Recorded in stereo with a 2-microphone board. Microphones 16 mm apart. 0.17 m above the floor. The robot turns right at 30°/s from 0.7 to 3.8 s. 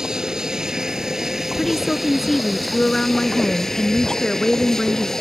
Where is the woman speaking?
25° left; by 5.1 s 95° left.